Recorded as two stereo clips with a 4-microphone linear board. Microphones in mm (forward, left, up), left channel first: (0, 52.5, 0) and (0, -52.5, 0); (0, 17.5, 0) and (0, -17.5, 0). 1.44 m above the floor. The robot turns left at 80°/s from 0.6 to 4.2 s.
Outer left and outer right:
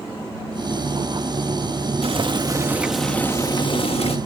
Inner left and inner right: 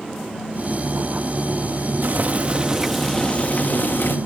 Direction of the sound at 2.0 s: 105° right.